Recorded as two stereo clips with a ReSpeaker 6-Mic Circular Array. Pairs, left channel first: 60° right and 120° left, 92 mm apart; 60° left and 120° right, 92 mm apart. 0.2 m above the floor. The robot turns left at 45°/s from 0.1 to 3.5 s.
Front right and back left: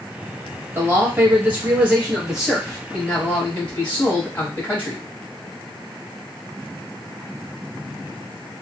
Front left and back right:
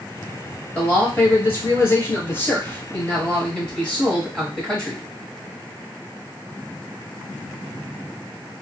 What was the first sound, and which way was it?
A man speaking, 115° left.